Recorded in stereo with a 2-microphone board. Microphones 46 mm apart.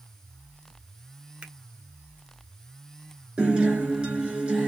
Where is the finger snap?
20° right (ahead or behind), 0.9 m.